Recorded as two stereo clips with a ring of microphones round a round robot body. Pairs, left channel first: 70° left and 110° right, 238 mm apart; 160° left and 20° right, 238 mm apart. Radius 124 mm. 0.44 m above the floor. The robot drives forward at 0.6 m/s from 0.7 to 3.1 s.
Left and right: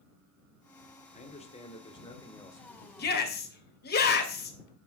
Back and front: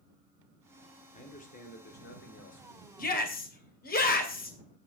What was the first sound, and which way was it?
A man speaking, 110° left.